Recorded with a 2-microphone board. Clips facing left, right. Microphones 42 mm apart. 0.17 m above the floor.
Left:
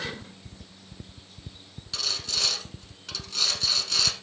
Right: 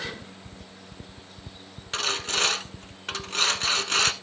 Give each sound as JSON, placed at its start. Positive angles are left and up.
{"t": 1.9, "sound": "sawing", "side_deg": -45, "distance_m": 0.9}